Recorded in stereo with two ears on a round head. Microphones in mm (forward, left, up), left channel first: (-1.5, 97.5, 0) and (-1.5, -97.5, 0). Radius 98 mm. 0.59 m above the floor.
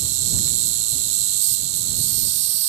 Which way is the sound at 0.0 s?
85° right.